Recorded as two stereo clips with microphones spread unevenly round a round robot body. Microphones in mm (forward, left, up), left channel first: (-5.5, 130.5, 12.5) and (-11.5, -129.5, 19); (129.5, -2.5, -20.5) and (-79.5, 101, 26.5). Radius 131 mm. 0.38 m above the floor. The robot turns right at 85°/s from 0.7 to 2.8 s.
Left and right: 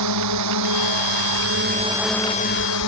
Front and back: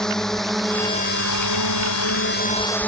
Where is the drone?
115° right; by 2.9 s 55° left.